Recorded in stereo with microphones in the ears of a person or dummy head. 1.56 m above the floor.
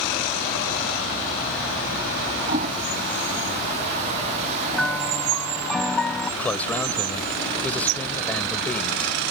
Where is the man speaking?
5° left (ahead or behind).